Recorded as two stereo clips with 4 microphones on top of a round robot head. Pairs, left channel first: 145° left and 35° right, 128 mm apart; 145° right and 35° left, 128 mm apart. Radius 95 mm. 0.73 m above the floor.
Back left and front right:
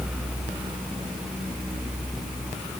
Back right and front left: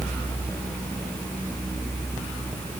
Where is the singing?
No singing in this recording.